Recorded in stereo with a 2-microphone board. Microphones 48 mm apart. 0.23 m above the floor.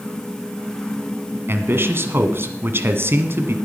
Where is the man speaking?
55° right (ahead or behind), 1.7 m.